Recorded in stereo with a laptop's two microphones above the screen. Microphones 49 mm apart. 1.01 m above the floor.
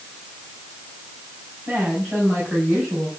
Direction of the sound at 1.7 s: 20° right (ahead or behind).